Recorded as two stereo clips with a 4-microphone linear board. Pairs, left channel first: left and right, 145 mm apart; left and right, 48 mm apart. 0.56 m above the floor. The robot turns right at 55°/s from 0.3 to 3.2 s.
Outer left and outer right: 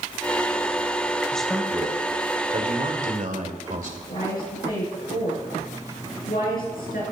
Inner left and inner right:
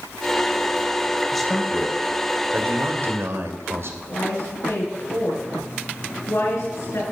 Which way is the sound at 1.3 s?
170° left.